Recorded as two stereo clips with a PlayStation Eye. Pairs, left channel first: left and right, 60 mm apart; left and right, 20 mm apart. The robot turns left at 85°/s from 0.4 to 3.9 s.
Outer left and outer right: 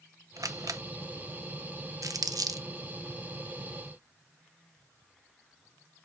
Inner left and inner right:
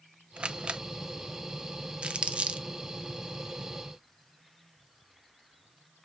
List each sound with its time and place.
0.4 s a camera shutter: 65° right (ahead or behind), 0.6 m; by 0.8 s 60° right (ahead or behind), 0.6 m
2.0 s crumpling: 60° right (ahead or behind), 0.7 m; by 2.7 s 65° right (ahead or behind), 0.7 m